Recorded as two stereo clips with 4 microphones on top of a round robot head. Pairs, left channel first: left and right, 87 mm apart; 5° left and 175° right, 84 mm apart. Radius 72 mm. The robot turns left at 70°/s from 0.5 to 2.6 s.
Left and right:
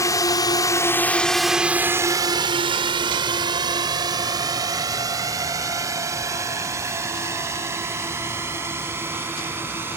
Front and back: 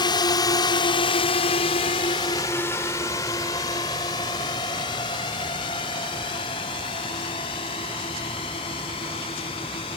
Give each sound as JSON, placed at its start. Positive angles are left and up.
{"t": 0.0, "sound": "a drone", "azimuth_deg": 35}